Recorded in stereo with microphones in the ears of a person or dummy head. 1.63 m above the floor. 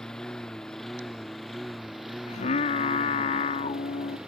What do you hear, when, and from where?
0.0 s a lawn mower: 5° left (ahead or behind); by 4.3 s 5° right (ahead or behind)
2.3 s singing: 40° left (ahead or behind)